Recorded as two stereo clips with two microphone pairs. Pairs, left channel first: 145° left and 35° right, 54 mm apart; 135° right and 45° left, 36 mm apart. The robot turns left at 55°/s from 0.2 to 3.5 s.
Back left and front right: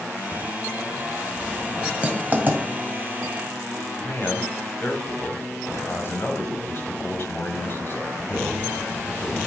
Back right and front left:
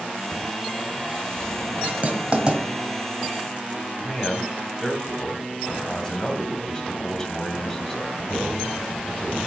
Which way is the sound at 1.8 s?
35° left.